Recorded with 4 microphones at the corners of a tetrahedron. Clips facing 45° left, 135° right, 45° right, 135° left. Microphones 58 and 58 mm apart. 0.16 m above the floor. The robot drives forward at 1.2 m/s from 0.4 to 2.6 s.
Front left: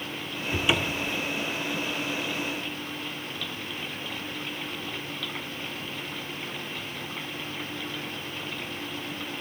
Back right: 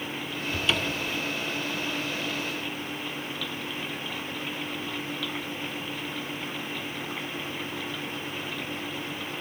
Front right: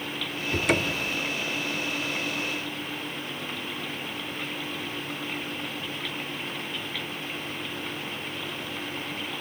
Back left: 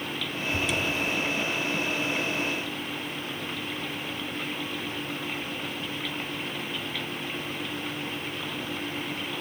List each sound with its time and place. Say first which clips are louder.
0.5 s a cupboard door: front left 2 dB, front right 3 dB; 20° right, 1.0 m; by 1.2 s 80° right, 0.5 m